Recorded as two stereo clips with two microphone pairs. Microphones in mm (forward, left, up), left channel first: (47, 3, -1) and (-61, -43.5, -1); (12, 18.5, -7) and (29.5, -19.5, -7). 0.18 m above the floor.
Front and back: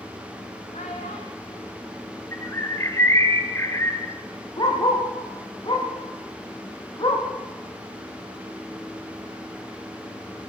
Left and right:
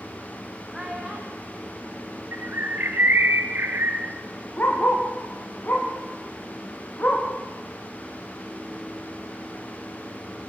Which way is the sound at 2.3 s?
45° right.